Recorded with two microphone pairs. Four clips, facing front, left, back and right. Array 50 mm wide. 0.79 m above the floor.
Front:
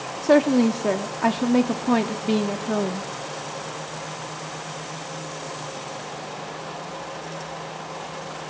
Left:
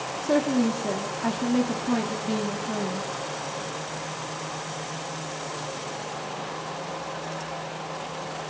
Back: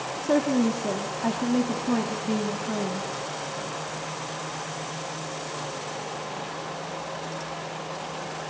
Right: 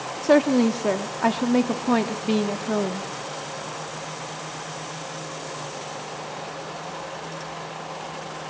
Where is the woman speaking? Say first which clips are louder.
Right 5 dB, front 6 dB; 40° right, 1.2 m.